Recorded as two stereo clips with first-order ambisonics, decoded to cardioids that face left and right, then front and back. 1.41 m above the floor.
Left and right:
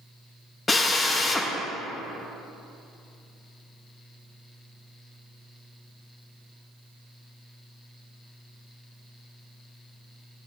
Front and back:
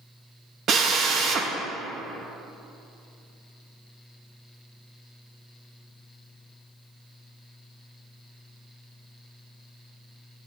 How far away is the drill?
About 0.8 m.